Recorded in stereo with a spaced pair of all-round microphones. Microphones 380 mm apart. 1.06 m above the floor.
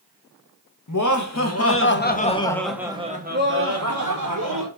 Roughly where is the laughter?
Left.